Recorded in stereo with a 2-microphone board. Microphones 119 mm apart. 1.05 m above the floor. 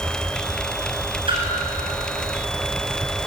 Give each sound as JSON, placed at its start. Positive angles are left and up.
{"t": 1.3, "sound": "a splash", "side_deg": -45, "distance_m": 8.5}